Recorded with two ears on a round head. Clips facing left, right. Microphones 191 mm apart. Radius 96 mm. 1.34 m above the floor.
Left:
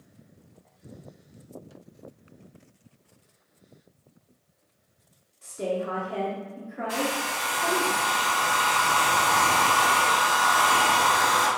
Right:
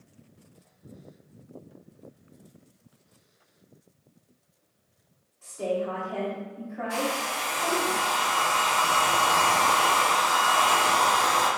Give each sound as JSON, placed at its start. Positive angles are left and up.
{"t": 5.4, "sound": "a woman speaking", "side_deg": 30, "distance_m": 0.8}
{"t": 6.9, "sound": "a hair dryer", "side_deg": 55, "distance_m": 1.6}